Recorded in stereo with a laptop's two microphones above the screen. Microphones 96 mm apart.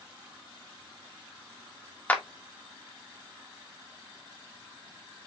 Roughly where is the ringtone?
No ringtone in this recording.